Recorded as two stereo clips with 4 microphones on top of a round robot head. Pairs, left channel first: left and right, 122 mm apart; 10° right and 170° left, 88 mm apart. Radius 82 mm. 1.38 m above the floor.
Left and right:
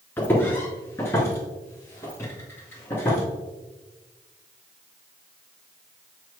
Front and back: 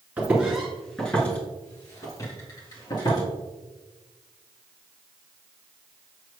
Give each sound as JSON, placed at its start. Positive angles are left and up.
{"t": 0.2, "sound": "footsteps", "azimuth_deg": 135, "distance_m": 1.4}